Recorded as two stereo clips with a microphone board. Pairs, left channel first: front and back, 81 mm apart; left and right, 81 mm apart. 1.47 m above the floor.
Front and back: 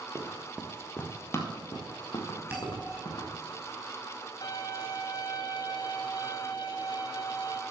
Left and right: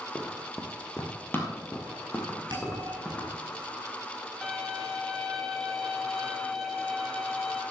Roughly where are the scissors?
No scissors in this recording.